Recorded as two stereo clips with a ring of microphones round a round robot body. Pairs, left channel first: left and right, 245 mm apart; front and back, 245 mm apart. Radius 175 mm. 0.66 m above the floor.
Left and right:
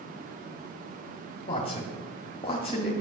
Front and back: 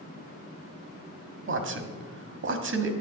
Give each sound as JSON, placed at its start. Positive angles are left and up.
{"t": 1.5, "sound": "a man speaking", "azimuth_deg": 160, "distance_m": 1.5}